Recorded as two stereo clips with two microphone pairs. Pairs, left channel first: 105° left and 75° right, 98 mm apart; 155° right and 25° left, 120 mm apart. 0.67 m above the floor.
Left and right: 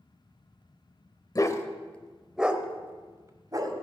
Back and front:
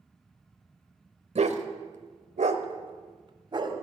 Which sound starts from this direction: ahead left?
A dog barking, at 1.4 s.